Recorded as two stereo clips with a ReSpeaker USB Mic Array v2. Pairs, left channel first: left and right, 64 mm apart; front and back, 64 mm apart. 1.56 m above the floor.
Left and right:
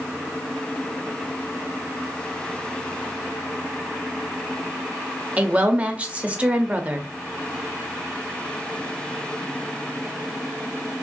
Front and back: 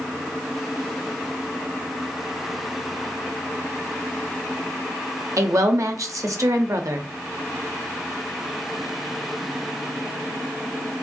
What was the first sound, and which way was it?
A woman speaking, 155° right.